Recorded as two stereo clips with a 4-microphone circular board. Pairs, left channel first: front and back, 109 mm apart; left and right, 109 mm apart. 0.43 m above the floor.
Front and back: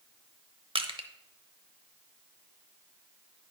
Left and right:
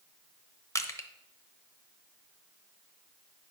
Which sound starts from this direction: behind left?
Crushing, at 0.8 s.